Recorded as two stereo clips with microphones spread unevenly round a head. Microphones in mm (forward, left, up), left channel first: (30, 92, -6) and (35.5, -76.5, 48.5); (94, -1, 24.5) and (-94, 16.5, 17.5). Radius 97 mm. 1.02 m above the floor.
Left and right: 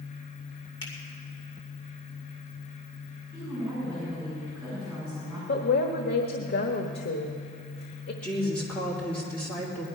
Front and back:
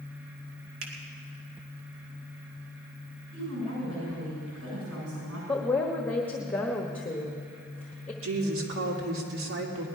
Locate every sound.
0.8 s a finger snap: 160° left, 2.5 m
3.3 s a woman speaking: 175° left, 7.5 m
5.5 s a woman speaking: 75° left, 1.2 m
8.2 s a woman speaking: 170° left, 3 m